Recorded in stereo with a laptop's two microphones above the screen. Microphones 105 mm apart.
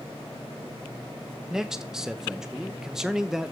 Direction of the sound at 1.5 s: 5° right (ahead or behind).